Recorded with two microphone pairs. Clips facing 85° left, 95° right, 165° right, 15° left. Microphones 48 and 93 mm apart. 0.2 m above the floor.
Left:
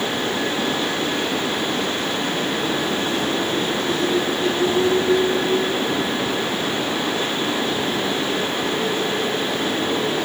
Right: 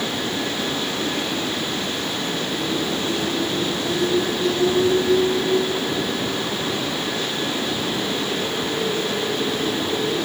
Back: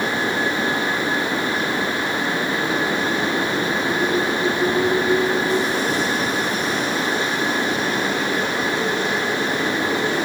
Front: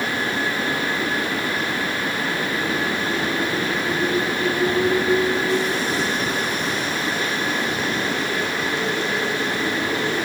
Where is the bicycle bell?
No bicycle bell in this recording.